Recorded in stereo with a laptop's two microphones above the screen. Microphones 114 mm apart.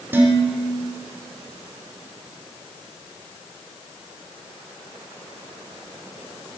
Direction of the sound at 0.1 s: 20° right (ahead or behind).